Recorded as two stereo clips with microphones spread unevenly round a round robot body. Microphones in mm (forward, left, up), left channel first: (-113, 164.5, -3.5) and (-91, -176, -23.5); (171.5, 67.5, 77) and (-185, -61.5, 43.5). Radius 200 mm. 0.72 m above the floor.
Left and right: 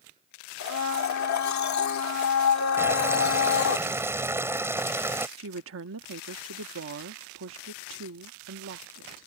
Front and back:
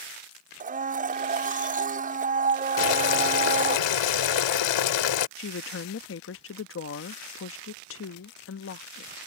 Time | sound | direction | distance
0.6 | a blender | 130° left | ?
2.8 | boiling | straight ahead | ?
5.4 | a woman speaking | 35° right | ?